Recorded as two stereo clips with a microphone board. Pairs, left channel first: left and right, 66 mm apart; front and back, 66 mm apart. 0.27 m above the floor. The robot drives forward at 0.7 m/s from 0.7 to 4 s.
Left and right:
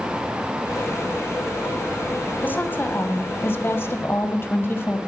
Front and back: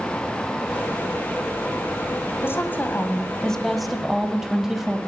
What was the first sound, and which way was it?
A woman speaking, 40° left.